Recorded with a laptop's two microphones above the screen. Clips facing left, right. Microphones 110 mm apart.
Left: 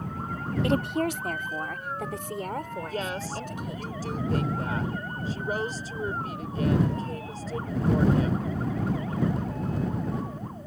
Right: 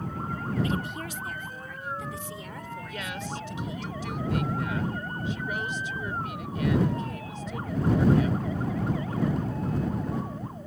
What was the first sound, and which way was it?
A woman speaking, 70° left (ahead or behind).